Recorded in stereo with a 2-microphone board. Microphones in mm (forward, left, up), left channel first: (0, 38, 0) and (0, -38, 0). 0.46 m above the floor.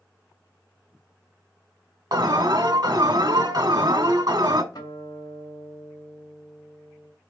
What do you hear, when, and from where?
2.1 s an alarm: 55° right (ahead or behind), 1.1 m
4.7 s a guitar: 60° left (ahead or behind), 2.5 m